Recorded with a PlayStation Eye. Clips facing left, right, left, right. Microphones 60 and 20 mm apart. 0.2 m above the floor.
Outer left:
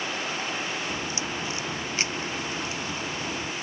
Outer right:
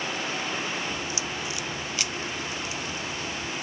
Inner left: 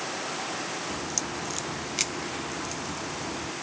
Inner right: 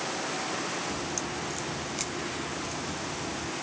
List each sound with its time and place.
0.9 s a crack: 35° left (ahead or behind), 0.6 m